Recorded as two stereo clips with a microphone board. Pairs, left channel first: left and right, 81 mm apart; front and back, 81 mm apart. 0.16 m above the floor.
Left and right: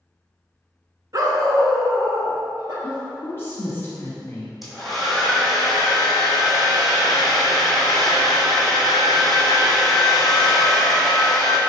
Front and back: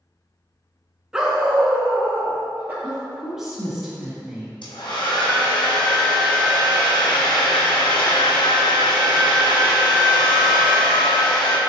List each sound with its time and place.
1.1 s a dog barking: 100° right, 0.6 m; by 2.7 s 115° right, 1.4 m
2.8 s a woman speaking: 95° left, 1.4 m
4.6 s a hair dryer: straight ahead, 1.1 m